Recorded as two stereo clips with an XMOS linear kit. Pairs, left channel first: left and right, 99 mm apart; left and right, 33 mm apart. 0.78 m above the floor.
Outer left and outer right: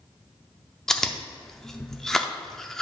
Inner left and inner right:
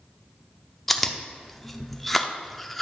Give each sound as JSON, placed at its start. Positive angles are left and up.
{"t": 0.9, "sound": "chewing", "side_deg": 5, "distance_m": 0.6}